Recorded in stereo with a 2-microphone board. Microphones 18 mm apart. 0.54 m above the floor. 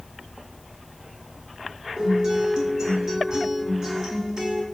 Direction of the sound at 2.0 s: 40° right (ahead or behind).